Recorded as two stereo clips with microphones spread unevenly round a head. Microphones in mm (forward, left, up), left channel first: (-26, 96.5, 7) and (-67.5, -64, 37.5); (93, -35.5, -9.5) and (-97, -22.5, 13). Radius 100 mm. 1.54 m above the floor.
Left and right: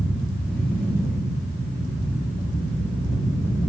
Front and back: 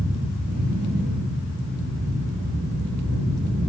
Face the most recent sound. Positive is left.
turn(degrees=160)